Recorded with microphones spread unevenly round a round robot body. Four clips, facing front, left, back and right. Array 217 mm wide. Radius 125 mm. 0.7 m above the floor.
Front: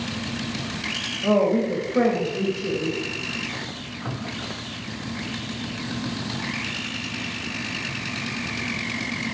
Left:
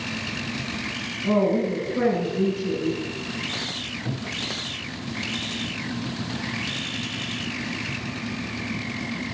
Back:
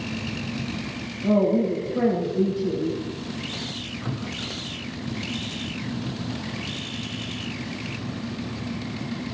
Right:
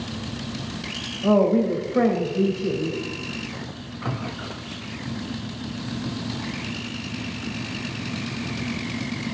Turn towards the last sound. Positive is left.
turn(degrees=-35)